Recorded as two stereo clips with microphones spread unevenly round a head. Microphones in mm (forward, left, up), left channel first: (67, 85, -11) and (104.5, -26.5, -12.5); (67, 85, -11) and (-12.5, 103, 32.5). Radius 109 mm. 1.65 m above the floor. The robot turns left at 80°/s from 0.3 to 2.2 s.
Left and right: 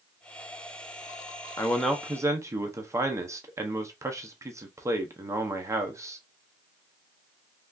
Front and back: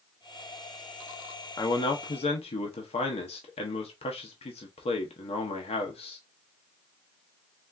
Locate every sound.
1.6 s a man speaking: 45° left, 0.7 m; by 6.2 s 5° right, 0.7 m